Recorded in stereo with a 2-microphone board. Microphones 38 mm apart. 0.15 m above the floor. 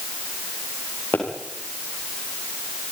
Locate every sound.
1.1 s a pop: 70° left (ahead or behind), 7.5 m